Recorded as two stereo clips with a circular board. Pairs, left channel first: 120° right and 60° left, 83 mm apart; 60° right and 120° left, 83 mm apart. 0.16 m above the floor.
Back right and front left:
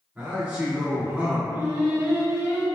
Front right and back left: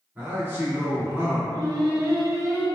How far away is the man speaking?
About 1.7 m.